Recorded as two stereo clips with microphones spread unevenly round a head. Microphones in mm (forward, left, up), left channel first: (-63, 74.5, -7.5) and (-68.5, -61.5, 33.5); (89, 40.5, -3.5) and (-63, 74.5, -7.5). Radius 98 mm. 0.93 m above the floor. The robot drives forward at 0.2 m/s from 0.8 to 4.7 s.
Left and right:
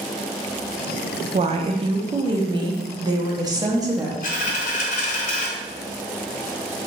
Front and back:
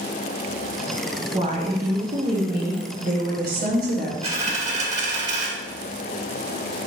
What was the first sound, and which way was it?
A woman speaking, 140° right.